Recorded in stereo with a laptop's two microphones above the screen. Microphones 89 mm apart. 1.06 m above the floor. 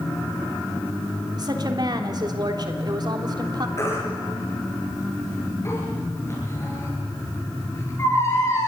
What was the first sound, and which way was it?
A woman speaking, 50° right (ahead or behind).